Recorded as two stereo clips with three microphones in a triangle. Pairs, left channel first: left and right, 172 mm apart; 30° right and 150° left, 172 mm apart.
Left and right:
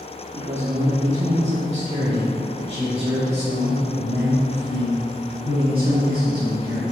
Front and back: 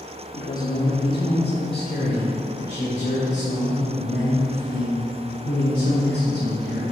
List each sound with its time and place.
0.3 s a man speaking: 50° right, 0.9 m; by 6.8 s 35° right, 4 m